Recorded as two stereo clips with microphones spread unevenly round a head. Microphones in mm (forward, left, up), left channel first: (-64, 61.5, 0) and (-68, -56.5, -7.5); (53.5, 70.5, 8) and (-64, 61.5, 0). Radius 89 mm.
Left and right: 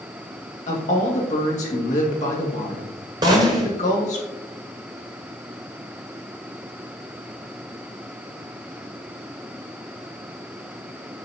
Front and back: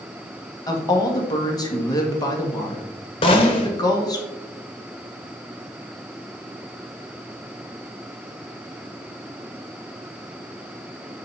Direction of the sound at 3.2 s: 30° right.